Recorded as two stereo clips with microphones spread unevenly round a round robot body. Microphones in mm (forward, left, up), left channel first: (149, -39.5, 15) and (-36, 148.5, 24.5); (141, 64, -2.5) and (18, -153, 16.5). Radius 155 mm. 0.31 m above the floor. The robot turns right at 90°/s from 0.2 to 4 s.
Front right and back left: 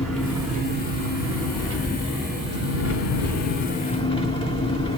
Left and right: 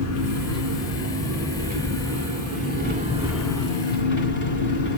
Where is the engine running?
40° left, 2.5 m; by 5.0 s 25° left, 2.5 m.